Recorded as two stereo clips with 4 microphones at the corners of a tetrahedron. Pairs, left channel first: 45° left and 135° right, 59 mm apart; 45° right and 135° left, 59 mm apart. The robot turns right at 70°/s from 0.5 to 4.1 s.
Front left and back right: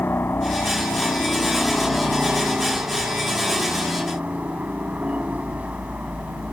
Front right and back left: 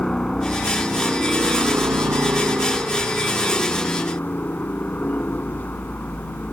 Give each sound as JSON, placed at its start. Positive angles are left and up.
{"t": 0.0, "sound": "a helicopter", "azimuth_deg": 25}